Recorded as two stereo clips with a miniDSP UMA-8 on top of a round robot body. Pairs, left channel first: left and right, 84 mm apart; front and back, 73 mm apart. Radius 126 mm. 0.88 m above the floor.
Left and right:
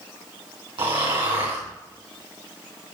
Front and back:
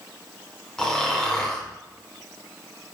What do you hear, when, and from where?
0.8 s snoring: 80° right, 3 m